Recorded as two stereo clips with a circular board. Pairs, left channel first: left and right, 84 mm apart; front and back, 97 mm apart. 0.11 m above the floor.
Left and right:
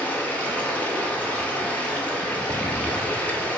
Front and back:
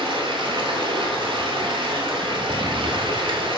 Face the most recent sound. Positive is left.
turn(degrees=160)